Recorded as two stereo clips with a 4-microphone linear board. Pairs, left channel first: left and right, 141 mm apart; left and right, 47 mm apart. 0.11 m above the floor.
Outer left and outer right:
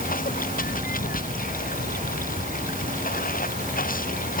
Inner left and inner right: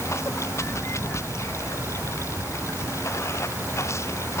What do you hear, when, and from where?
0.0 s running water: 80° left